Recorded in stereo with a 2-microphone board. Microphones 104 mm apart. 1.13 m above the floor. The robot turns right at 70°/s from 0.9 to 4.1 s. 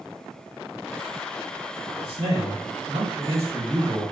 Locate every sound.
2.0 s a man speaking: 125° right, 1.5 m; by 4.0 s 15° left, 1.5 m